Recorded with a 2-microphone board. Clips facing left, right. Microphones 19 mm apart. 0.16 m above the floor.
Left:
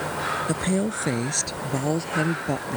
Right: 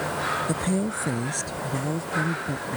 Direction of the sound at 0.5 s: 15° left (ahead or behind).